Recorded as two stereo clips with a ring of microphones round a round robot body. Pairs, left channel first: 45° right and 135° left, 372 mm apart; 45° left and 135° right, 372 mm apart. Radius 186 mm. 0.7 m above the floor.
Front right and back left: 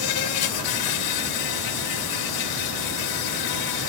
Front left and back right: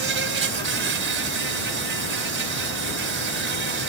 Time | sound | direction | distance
0.0 | an insect | 75° right | ?